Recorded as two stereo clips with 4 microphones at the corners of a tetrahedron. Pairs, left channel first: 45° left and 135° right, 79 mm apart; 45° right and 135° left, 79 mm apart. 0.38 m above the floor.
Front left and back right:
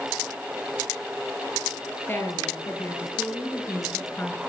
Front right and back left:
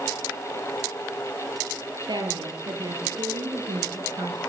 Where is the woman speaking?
110° left, 9 m.